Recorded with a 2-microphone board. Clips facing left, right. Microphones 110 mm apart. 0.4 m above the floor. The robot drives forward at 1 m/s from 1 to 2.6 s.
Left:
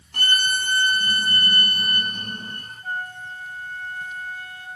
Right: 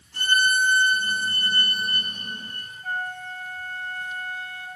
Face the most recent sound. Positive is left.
turn(degrees=10)  # may be behind; listen again after turning